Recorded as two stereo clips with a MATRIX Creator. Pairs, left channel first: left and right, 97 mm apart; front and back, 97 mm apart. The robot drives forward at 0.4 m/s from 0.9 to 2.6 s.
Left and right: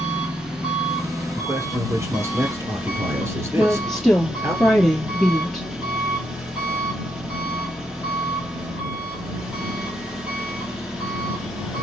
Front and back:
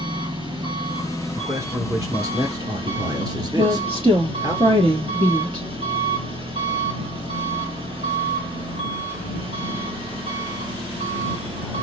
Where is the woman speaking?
175° left, 2.5 m.